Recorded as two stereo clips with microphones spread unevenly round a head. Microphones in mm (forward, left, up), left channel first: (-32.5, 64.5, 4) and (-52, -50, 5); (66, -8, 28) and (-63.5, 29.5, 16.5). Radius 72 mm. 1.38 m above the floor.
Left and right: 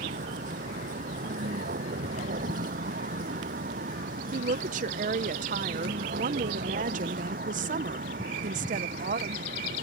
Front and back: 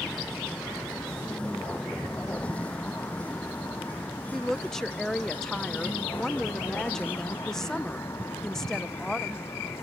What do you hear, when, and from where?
0.0 s a vehicle: 100° right; by 9.8 s 90° right
4.3 s a woman speaking: 105° right